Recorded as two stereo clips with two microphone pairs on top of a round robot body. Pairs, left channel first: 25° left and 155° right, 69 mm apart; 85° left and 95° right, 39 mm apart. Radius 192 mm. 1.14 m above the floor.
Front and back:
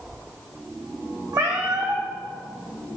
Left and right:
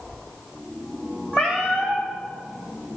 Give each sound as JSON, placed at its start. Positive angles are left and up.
{"t": 1.3, "sound": "a cat meowing", "azimuth_deg": 160, "distance_m": 1.0}